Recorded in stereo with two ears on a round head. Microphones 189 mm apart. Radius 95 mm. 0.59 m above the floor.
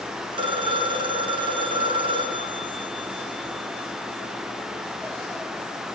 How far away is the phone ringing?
About 6 m.